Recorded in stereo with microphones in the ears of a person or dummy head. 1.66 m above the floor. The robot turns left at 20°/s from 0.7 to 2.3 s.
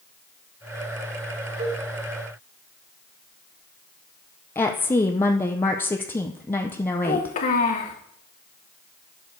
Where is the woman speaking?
15° left (ahead or behind), 0.6 m.